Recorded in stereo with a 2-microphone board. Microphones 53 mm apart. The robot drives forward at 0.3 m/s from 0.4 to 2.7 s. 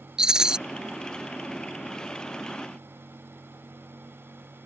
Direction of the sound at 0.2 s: 15° right (ahead or behind).